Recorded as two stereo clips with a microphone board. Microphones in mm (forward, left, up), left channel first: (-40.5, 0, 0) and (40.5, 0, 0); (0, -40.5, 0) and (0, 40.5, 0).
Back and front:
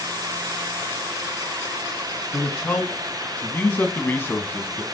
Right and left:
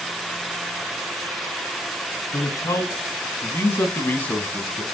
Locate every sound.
2.3 s a man speaking: 110° right, 2 m; by 4.8 s 155° right, 1.3 m